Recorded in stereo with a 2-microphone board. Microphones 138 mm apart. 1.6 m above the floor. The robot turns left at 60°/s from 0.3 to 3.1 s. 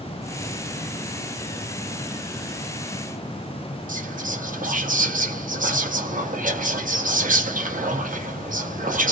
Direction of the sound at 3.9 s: 70° right (ahead or behind).